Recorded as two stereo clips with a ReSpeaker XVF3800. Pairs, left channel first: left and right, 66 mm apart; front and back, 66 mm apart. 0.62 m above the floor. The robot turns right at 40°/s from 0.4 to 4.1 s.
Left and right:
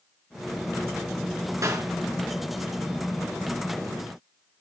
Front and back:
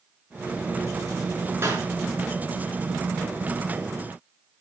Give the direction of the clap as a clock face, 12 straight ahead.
4 o'clock.